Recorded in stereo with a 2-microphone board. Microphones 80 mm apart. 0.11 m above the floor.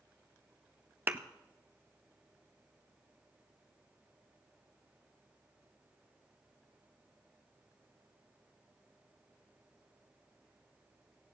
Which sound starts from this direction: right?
A thud, at 1.1 s.